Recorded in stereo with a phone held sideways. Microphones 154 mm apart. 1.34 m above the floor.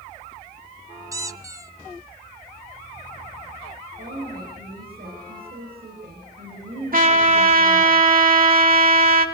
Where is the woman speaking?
75° right (ahead or behind), 8.5 m.